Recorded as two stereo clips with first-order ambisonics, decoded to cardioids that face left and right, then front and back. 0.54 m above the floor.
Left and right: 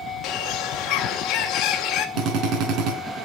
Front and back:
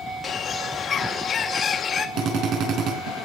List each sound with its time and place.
0.2 s a bird: 60° left, 1.8 m
2.2 s a drill: 135° right, 3.5 m